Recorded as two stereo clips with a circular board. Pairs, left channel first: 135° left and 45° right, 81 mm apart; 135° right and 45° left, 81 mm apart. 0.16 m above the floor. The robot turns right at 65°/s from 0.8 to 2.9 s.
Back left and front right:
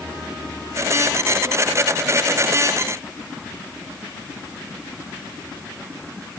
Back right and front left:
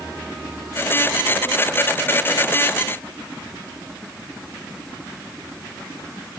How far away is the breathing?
I don't hear breathing.